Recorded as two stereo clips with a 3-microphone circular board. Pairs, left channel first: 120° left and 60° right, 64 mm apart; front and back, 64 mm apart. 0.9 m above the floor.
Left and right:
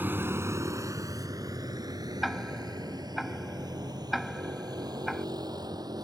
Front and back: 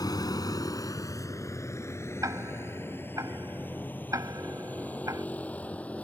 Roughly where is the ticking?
Behind right.